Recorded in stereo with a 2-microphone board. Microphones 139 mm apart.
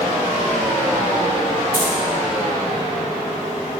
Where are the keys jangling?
85° left, 4 m.